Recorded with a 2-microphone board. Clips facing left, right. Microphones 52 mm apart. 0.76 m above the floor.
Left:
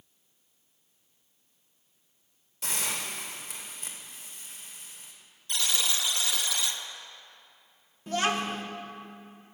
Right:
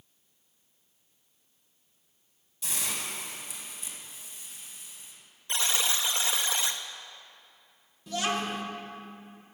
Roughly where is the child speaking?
Left.